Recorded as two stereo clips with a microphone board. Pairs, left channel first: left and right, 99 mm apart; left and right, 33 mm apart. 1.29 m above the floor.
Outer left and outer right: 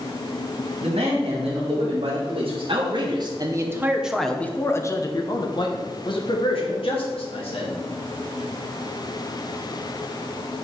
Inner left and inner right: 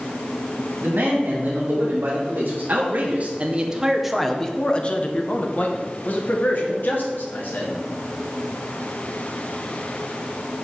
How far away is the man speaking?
About 2.5 m.